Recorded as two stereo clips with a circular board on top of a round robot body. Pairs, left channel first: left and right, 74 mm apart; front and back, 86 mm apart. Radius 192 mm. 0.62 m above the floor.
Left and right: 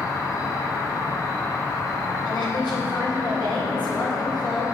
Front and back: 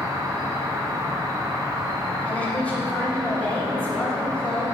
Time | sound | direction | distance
0.0 | an insect | 130° left | 1.6 m
2.2 | a woman speaking | 75° left | 2 m